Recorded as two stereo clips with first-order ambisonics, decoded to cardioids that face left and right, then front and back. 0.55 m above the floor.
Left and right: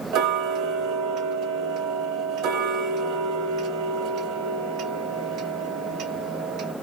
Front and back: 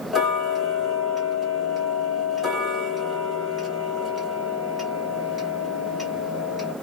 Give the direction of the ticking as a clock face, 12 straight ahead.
3 o'clock.